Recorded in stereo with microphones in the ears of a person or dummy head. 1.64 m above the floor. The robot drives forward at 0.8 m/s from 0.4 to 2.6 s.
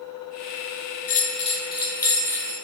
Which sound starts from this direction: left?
A bell, at 1.1 s.